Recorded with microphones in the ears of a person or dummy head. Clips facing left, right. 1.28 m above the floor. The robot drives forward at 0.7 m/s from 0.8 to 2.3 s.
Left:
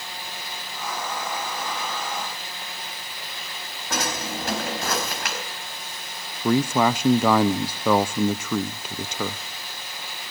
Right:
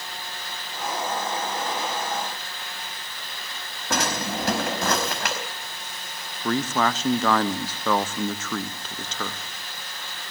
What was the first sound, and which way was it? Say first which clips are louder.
A drawer: right 2 dB; 55° right (ahead or behind).